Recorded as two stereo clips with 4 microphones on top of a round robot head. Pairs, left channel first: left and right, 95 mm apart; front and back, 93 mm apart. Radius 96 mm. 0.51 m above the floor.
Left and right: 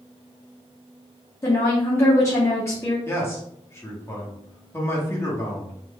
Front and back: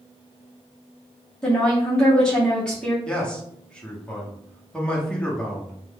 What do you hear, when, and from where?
1.4 s a woman speaking: 70° left, 1.1 m
3.0 s a man speaking: 65° left, 1.1 m